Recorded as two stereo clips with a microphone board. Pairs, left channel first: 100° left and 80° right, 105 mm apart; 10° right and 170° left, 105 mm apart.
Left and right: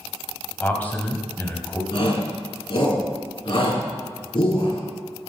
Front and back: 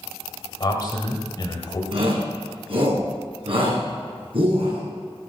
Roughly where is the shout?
Behind left.